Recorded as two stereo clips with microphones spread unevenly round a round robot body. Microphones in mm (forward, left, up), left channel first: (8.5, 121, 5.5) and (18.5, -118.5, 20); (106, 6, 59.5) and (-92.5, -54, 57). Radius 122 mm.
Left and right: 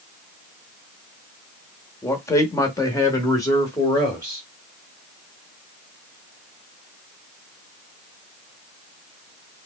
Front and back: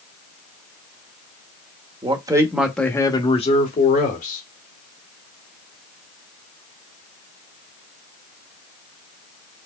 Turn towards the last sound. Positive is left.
turn(degrees=20)